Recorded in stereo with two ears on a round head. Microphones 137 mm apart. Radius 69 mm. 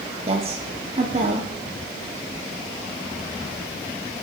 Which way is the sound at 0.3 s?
35° right (ahead or behind).